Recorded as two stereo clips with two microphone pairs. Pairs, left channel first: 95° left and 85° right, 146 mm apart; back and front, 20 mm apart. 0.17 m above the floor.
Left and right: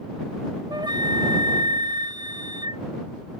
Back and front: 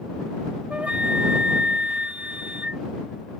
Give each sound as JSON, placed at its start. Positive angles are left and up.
{"t": 0.7, "sound": "a flute", "azimuth_deg": -25}